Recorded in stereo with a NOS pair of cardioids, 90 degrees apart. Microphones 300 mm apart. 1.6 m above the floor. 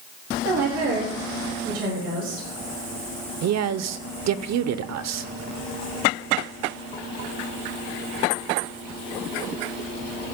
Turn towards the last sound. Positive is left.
turn(degrees=-60)